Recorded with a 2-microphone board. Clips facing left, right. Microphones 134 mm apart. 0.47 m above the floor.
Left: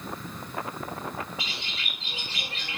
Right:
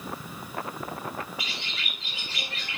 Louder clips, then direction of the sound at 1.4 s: Even; 30° left (ahead or behind).